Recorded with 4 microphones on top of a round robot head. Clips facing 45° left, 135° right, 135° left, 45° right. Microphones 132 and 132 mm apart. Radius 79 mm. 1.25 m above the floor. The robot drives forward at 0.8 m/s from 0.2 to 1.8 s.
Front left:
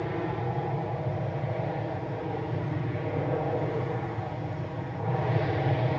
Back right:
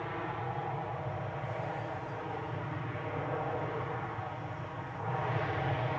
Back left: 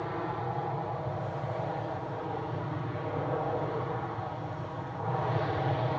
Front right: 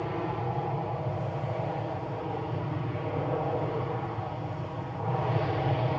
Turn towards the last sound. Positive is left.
turn(degrees=30)